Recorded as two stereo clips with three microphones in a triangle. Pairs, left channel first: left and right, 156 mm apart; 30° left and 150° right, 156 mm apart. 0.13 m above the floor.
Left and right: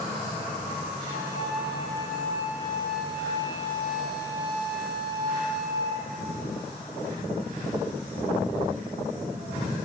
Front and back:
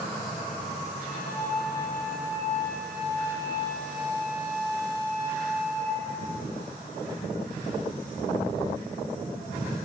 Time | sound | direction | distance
1.1 | a flute | 160° right | 2 m